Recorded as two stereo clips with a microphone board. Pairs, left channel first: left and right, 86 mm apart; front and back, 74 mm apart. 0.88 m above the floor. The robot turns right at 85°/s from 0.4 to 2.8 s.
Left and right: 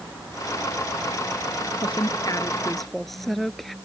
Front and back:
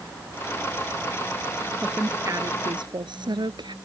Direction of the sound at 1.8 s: 90° left.